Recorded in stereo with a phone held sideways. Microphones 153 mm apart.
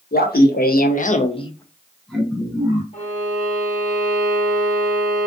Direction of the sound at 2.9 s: 50° left (ahead or behind).